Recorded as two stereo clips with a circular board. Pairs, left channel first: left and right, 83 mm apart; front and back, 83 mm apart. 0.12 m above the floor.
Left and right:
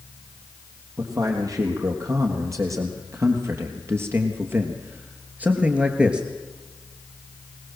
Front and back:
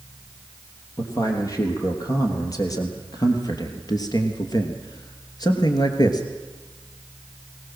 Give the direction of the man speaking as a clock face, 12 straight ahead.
2 o'clock.